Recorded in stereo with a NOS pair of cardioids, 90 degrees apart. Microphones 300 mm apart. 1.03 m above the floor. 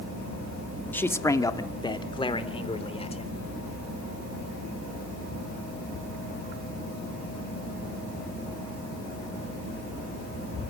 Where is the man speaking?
5° left, 1.6 m; by 3.4 s 20° left, 3.5 m.